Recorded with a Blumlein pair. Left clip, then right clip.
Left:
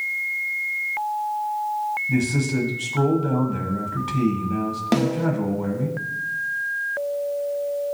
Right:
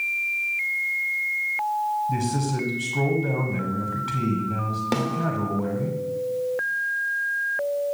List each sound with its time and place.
2.1 s a man speaking: 10° left, 0.9 m
4.9 s a snare drum: 10° left, 0.5 m